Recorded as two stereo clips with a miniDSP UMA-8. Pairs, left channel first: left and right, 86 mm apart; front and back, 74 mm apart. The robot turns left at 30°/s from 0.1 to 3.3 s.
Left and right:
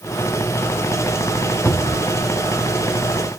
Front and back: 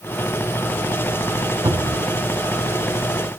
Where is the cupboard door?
160° left, 0.7 m; by 2.0 s 145° left, 0.7 m.